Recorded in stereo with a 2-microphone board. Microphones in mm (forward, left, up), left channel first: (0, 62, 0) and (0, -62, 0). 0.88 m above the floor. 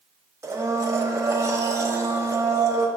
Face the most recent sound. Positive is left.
turn(degrees=-20)  # may be behind; listen again after turning